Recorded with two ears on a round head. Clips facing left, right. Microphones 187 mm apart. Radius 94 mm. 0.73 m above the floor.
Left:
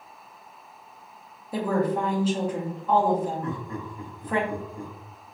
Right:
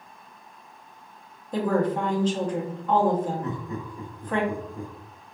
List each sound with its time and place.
1.5 s a woman speaking: 5° left (ahead or behind), 0.7 m
3.4 s laughter: 20° right (ahead or behind), 0.8 m